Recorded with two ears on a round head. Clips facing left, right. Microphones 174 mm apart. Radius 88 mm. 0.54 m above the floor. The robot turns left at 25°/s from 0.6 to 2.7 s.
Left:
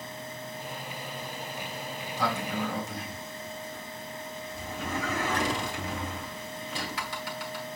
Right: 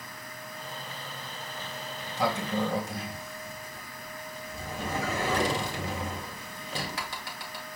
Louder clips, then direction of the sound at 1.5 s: Left 2 dB; centre (ahead or behind).